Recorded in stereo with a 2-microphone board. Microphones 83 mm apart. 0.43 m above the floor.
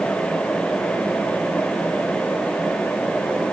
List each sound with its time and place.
Only background noise.